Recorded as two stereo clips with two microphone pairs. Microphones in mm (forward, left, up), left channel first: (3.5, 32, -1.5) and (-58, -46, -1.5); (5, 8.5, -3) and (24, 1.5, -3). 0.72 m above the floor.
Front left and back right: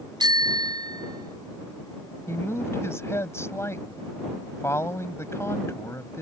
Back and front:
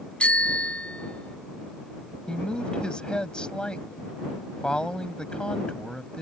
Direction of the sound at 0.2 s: 175° right.